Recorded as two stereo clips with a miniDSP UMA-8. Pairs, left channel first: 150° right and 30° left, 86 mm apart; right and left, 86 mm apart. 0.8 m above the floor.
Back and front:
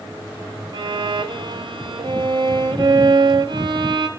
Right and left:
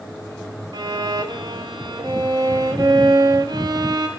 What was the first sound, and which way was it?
A violin, 55° left.